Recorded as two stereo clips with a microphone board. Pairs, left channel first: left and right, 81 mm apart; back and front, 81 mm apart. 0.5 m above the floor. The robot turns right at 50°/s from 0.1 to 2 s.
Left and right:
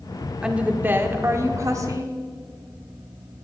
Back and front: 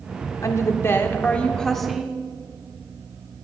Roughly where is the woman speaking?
Behind.